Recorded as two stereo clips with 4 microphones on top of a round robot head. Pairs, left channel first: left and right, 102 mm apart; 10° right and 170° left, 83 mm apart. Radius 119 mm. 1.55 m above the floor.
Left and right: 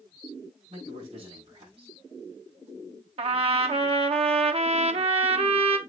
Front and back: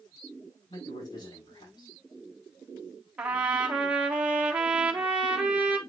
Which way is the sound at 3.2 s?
115° right.